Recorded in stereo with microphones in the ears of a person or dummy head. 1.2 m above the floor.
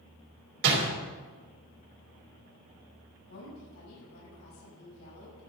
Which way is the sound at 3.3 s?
85° left.